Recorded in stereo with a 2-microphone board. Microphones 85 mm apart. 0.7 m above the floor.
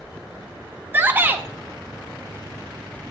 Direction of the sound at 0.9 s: 25° right (ahead or behind).